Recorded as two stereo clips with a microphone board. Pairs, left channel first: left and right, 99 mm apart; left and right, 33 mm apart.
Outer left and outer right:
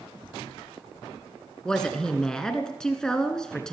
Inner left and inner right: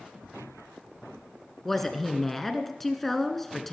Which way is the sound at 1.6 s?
5° left (ahead or behind).